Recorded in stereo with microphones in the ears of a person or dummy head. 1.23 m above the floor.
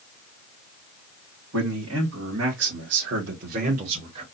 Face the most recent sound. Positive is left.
turn(degrees=-25)  # may be behind; listen again after turning